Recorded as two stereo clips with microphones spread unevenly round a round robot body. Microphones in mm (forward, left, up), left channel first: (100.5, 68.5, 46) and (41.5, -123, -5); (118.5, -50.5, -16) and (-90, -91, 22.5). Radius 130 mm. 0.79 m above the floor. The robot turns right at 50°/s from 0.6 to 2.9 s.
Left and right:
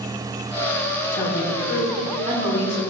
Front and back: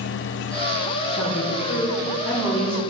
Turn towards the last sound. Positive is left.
turn(degrees=130)